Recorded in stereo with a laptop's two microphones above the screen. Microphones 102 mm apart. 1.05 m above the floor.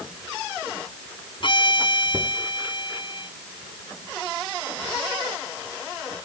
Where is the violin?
50° left (ahead or behind).